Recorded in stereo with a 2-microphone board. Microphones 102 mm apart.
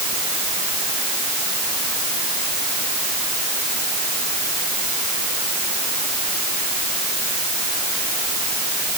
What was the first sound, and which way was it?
Only background noise.